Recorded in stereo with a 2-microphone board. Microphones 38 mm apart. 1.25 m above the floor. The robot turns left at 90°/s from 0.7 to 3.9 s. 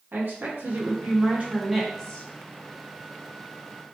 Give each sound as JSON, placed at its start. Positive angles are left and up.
{"t": 0.1, "sound": "a woman speaking", "azimuth_deg": -80, "distance_m": 1.0}